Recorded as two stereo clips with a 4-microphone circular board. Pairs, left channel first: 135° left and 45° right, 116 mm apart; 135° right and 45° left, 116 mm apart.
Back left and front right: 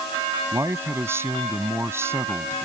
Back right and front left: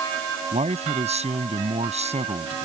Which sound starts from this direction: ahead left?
A man speaking, at 0.5 s.